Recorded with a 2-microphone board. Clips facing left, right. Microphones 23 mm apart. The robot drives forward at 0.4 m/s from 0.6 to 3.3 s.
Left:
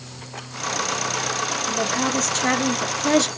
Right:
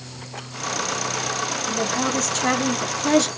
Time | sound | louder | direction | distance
1.7 | a woman speaking | even | 5° left (ahead or behind) | 1.2 m